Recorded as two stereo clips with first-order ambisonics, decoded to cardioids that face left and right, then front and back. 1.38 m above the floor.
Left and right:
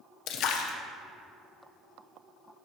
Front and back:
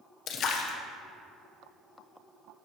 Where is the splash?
50° left, 1.0 m.